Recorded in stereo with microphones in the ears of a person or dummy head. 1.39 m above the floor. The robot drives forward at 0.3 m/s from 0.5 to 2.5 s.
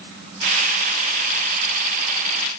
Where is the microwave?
I don't hear a microwave.